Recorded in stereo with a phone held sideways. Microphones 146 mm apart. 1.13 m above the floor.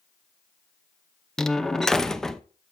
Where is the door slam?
5° left (ahead or behind), 0.7 m.